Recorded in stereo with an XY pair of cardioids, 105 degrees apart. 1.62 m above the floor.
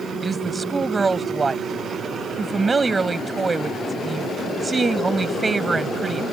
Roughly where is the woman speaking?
Ahead right.